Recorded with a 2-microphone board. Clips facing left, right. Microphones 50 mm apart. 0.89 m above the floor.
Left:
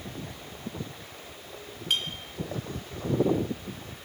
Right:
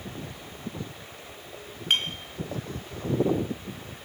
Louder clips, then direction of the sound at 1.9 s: Right 4 dB; 45° right (ahead or behind).